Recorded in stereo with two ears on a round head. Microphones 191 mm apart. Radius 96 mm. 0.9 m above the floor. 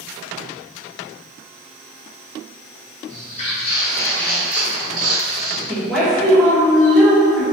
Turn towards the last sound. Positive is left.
turn(degrees=0)  # may be behind; listen again after turning